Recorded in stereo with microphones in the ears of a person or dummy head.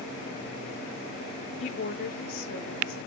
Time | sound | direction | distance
1.6 | a woman speaking | 35° left (ahead or behind) | 0.7 m